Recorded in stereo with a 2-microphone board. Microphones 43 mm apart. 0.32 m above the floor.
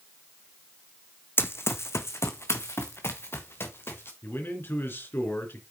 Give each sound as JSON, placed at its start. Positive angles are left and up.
{"t": 1.4, "sound": "running footsteps", "side_deg": 55, "distance_m": 1.0}
{"t": 4.2, "sound": "a man speaking", "side_deg": 55, "distance_m": 3.5}